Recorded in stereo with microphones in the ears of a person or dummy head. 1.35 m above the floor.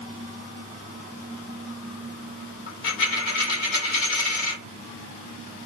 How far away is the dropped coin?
About 1.4 m.